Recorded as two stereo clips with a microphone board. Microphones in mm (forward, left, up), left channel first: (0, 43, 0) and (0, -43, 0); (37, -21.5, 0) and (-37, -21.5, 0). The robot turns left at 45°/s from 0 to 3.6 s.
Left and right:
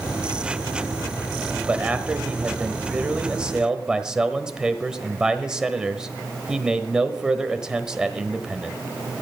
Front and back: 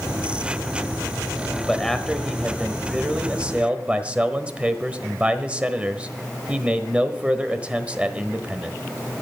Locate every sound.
1.7 s a man speaking: 65° right, 1.1 m; by 8.8 s 150° right, 1.1 m